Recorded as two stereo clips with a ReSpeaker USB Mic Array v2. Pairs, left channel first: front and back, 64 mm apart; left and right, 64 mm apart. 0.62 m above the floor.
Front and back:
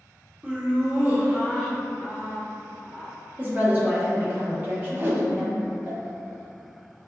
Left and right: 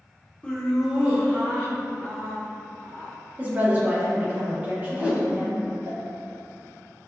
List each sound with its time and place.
0.4 s laughter: 140° left, 0.7 m; by 3.1 s 120° right, 2.5 m
3.4 s a woman speaking: 140° right, 0.9 m
4.9 s a whoosh: 145° right, 0.5 m